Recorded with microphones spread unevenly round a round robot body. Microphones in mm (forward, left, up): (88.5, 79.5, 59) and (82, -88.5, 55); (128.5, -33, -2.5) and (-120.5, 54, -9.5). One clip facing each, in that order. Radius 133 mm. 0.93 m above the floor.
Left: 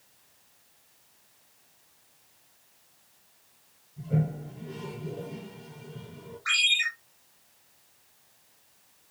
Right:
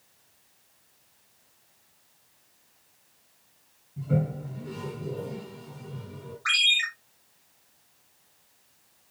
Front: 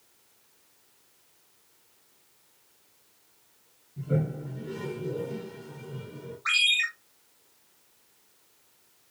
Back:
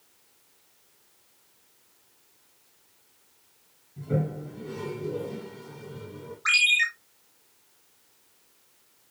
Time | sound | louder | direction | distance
4.0 | a toilet flushing | right 2 dB, back 1 dB | 110° right | 6 m
6.5 | a ringtone | right 2 dB, back 4 dB | 140° right | 5 m